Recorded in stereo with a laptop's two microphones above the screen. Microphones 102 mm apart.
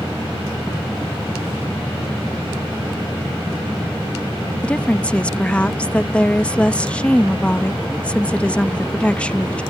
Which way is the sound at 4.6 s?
10° left (ahead or behind).